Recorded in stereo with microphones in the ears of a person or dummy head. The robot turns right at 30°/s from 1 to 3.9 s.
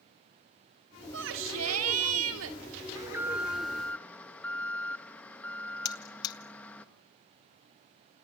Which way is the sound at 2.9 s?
20° right (ahead or behind).